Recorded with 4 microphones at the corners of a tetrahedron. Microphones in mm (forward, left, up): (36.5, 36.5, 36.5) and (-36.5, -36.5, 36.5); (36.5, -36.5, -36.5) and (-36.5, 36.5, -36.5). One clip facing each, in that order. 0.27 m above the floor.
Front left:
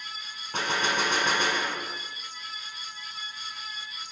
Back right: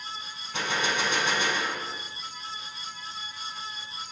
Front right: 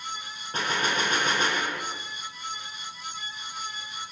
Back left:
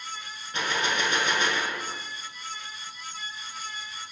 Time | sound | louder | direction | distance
0.5 | a gunshot | front left 1 dB, front right 1 dB | 5° left | 1.0 m